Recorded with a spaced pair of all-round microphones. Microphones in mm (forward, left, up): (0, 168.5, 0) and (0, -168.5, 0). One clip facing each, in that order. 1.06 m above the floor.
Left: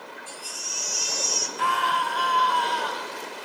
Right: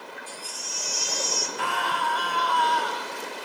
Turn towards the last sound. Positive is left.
turn(degrees=-75)  # may be behind; listen again after turning